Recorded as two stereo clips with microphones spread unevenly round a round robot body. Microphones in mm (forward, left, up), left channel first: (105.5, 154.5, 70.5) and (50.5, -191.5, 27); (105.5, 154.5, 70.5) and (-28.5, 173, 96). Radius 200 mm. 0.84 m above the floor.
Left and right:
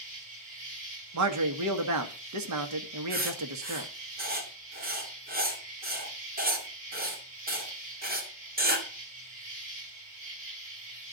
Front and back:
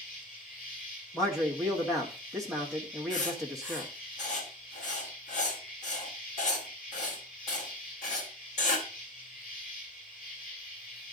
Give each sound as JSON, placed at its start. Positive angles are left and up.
{"t": 0.0, "sound": "an insect", "azimuth_deg": -60, "distance_m": 6.0}
{"t": 1.1, "sound": "a man speaking", "azimuth_deg": -85, "distance_m": 1.4}
{"t": 3.1, "sound": "writing", "azimuth_deg": -35, "distance_m": 2.5}